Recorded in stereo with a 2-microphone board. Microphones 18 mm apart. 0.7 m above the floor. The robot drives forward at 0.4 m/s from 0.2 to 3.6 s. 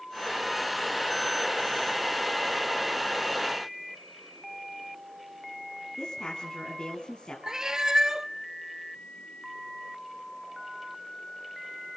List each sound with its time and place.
6.0 s a woman speaking: 50° left (ahead or behind), 5.5 m
7.5 s a cat meowing: 40° right (ahead or behind), 0.6 m